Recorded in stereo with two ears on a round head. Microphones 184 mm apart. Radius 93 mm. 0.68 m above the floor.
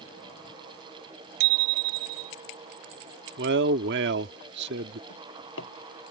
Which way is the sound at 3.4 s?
60° right (ahead or behind).